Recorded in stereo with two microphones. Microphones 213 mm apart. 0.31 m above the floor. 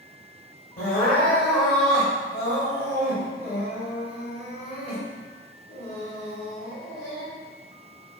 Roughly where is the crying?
Left.